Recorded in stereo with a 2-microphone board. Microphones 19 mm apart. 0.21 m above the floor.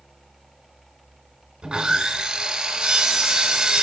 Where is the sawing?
60° right (ahead or behind), 0.8 m.